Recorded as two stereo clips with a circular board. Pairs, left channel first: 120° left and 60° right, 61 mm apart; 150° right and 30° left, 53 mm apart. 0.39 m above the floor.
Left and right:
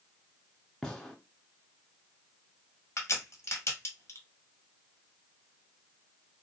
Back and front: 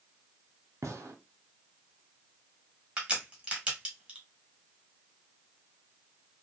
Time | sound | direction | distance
0.8 | a gunshot | 40° left | 0.8 m
3.0 | a crack | 95° left | 1.2 m